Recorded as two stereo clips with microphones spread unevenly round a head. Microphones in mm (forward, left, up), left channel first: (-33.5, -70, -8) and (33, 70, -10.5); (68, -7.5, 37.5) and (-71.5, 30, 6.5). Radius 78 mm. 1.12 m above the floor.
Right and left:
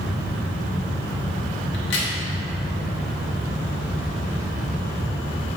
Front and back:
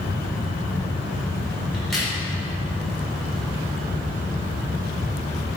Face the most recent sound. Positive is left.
turn(degrees=-105)